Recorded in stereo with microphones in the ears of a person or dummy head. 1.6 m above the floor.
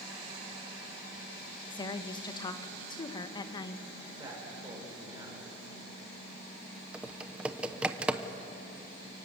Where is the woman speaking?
20° left (ahead or behind), 1.4 m.